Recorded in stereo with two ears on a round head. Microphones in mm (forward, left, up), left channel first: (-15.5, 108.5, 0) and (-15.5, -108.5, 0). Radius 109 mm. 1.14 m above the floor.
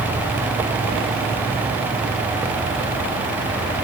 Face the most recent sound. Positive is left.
No sound to turn to.